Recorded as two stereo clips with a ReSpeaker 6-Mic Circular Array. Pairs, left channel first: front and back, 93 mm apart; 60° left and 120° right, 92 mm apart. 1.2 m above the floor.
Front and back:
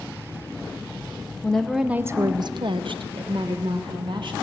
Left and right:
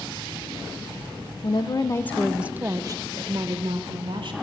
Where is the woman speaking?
80° left, 0.7 m; by 4.3 s 150° right, 1.7 m.